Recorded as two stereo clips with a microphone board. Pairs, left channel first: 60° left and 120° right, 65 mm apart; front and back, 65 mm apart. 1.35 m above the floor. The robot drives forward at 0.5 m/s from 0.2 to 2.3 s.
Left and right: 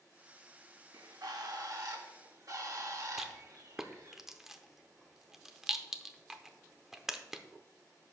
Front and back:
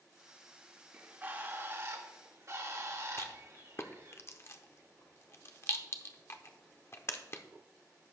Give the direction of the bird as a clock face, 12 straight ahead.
4 o'clock.